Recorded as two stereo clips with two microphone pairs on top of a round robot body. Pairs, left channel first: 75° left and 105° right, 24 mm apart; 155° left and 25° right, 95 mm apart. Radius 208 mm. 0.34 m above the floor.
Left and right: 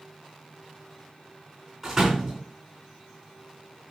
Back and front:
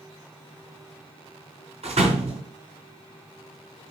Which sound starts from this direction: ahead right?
A door slam, at 1.8 s.